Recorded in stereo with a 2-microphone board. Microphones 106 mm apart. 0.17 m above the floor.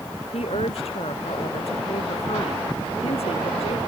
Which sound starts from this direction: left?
A woman speaking, at 0.3 s.